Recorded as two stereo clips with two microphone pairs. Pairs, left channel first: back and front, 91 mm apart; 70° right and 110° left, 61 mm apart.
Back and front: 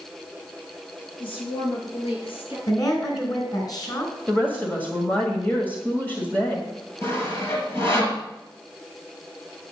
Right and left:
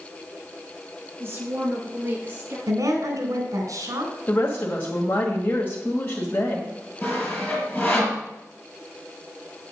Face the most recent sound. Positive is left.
turn(degrees=-125)